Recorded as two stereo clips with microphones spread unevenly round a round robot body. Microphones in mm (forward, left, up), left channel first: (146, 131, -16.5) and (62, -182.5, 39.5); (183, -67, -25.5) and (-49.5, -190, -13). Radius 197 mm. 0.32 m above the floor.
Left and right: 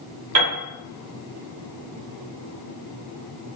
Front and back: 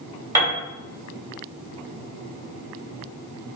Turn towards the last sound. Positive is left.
turn(degrees=-75)